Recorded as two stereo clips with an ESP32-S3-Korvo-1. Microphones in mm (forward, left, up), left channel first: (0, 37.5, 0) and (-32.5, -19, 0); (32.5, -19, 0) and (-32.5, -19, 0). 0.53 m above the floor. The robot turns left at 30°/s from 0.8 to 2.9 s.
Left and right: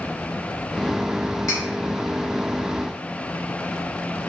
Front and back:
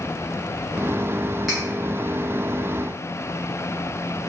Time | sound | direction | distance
1.5 | cutlery clinking | 95° left | 1.5 m